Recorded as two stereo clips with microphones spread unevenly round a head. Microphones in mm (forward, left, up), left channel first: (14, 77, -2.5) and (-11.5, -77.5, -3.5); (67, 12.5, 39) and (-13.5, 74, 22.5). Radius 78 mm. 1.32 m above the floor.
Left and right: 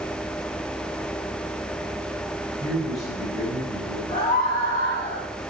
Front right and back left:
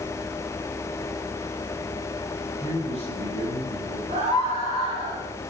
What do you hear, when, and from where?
2.6 s a man speaking: 175° left, 7 m; by 4.0 s 165° left, 8 m
4.1 s a scream: 140° left, 6.5 m